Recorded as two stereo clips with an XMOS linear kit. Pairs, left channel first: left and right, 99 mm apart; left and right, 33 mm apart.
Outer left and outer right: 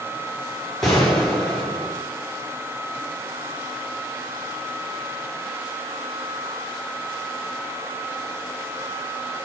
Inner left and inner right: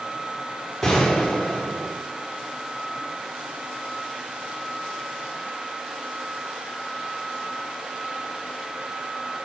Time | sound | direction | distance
0.8 | a gunshot | 5° left (ahead or behind) | 3 m